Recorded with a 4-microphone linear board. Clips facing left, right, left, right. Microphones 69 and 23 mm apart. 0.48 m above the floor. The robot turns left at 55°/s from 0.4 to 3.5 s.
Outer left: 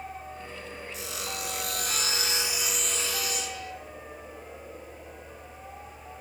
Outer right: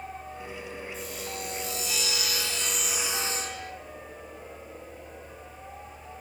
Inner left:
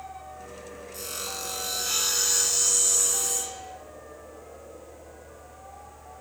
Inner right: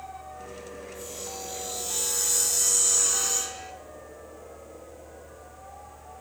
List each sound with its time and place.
0.9 s sawing: 100° left, 2.5 m; by 3.7 s 40° right, 2.5 m